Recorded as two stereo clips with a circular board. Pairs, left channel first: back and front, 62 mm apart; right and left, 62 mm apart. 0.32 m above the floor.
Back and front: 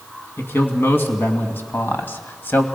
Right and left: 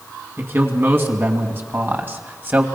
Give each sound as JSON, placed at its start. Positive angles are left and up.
{"t": 0.4, "sound": "a man speaking", "azimuth_deg": 130, "distance_m": 3.0}